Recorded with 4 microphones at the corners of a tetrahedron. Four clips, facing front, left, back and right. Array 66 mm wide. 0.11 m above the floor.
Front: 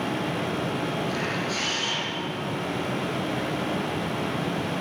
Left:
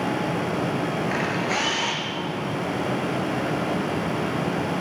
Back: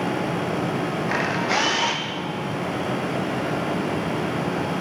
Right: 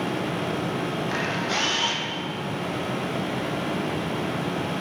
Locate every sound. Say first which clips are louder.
1.1 s a camera shutter: left 2 dB, back 6 dB; 170° left, 2 m